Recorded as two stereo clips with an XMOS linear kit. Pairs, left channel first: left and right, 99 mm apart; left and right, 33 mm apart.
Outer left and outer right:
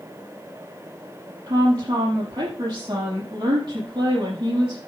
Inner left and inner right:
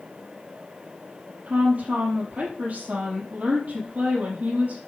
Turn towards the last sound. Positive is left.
turn(degrees=-45)  # may be behind; listen again after turning